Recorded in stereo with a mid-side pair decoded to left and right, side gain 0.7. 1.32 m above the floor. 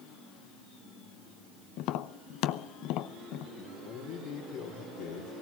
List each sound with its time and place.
1.8 s tapping: 65° left, 0.8 m
3.6 s a man speaking: 60° left, 3.5 m